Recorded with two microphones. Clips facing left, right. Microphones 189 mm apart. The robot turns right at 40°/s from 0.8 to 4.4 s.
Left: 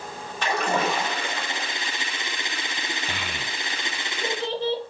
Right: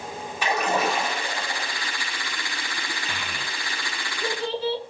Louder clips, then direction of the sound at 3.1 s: Left 1 dB; 50° left (ahead or behind).